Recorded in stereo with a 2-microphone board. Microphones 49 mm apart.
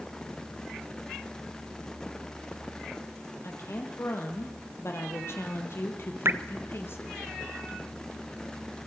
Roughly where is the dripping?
Right.